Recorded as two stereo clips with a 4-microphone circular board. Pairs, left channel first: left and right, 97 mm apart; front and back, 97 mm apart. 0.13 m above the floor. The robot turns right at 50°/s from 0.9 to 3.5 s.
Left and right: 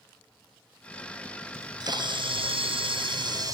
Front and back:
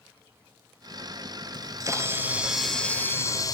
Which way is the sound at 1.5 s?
145° right.